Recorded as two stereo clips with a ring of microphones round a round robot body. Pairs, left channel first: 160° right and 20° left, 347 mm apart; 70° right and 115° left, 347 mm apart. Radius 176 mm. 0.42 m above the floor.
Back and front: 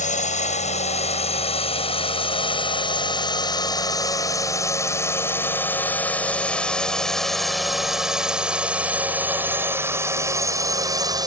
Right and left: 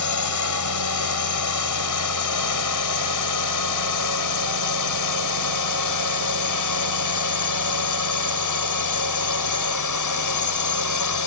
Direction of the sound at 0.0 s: 90° right.